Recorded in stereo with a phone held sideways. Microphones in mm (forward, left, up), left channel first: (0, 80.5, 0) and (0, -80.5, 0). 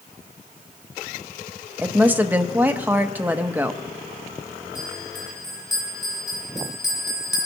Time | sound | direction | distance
1.8 | a woman speaking | 10° right (ahead or behind) | 0.8 m
4.8 | a bell | centre (ahead or behind) | 2.5 m